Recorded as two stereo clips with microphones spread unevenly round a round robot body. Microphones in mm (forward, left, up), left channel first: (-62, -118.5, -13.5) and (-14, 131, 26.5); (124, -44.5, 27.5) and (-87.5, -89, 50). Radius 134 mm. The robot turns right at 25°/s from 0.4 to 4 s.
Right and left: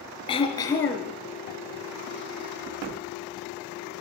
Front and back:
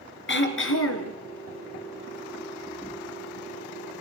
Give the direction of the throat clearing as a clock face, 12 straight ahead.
1 o'clock.